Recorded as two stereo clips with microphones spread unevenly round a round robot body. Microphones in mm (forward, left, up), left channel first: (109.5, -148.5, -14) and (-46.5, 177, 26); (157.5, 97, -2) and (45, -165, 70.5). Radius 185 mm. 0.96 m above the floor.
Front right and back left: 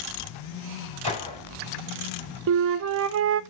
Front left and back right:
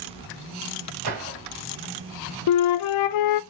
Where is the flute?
55° left, 0.5 m.